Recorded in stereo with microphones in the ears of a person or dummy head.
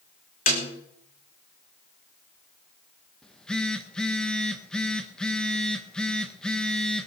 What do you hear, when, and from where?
0.5 s a snare drum: 45° left (ahead or behind), 3 m
3.2 s a phone buzzing: 5° left (ahead or behind), 1.7 m